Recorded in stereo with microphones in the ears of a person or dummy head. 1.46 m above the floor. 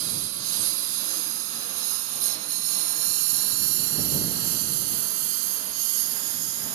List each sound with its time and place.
0.0 s a lawn mower: 70° right (ahead or behind); by 6.8 s 60° right (ahead or behind)